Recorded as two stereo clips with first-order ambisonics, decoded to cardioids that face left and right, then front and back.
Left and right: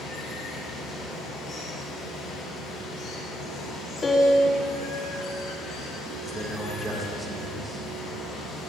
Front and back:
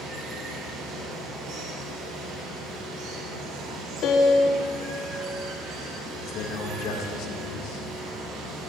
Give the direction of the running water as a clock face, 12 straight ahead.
7 o'clock.